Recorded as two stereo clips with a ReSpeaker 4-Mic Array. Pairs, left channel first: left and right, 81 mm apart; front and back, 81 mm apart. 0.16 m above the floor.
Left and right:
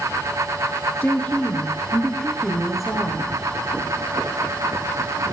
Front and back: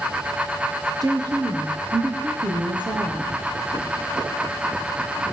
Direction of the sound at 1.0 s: 155° left.